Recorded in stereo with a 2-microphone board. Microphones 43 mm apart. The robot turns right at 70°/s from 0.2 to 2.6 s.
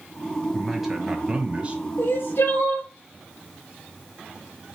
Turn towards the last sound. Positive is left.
turn(degrees=120)